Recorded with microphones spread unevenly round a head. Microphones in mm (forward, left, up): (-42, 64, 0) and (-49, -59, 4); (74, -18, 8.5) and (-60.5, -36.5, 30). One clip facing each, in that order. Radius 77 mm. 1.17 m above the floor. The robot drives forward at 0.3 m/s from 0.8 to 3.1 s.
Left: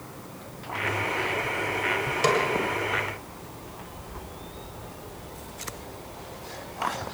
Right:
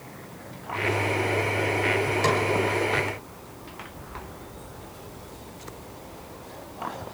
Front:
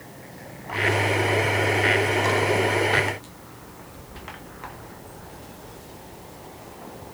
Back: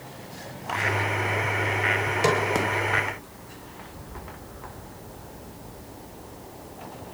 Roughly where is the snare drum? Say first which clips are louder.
Left 3 dB, even; behind.